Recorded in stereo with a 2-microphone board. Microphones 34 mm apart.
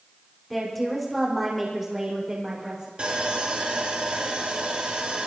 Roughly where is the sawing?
Right.